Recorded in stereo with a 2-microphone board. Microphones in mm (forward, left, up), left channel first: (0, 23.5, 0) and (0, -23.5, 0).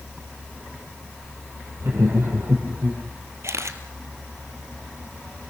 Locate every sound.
1.8 s laughter: 55° right (ahead or behind), 7 m; by 3.0 s 60° right (ahead or behind), 7.5 m
3.4 s a camera shutter: 75° right (ahead or behind), 1.7 m